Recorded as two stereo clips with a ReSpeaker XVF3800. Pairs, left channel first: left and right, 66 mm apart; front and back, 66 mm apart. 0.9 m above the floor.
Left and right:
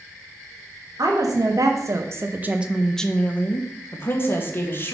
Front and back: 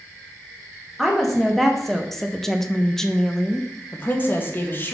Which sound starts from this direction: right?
A woman speaking, at 1.0 s.